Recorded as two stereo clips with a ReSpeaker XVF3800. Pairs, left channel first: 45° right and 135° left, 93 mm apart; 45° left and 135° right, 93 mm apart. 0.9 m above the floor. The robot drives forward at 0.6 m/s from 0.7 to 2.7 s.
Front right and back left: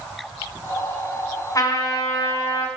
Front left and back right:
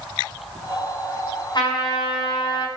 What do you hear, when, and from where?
1.6 s a trumpet: 5° left, 4.5 m